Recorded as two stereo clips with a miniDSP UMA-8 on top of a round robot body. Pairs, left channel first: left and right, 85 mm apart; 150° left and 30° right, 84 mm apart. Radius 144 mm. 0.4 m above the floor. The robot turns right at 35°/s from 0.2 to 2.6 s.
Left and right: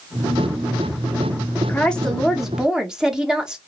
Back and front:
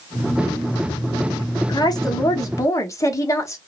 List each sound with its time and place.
1.7 s a woman speaking: 160° left, 1.3 m; by 3.6 s 170° right, 1.3 m